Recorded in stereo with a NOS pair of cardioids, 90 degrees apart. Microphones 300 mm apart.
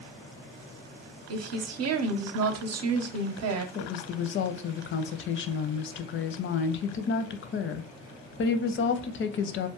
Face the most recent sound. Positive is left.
turn(degrees=40)